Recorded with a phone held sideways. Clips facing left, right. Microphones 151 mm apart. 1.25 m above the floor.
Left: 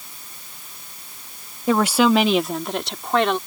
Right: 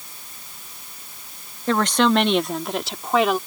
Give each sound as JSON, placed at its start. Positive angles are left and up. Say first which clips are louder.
{"t": 1.7, "sound": "a woman speaking", "louder": "left 2 dB", "side_deg": 10}